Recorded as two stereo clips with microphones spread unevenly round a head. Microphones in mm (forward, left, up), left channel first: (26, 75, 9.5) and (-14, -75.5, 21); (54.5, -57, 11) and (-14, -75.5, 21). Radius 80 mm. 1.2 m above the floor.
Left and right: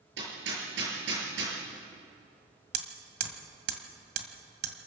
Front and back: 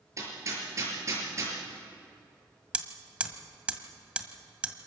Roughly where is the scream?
No scream in this recording.